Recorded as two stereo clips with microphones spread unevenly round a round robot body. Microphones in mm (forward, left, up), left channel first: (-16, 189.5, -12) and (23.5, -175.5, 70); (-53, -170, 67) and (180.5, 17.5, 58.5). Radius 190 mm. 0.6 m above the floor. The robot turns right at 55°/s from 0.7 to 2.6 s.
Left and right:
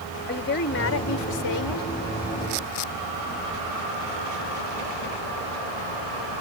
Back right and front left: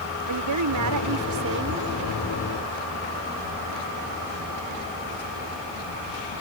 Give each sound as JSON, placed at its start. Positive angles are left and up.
{"t": 0.3, "sound": "a woman speaking", "azimuth_deg": 40}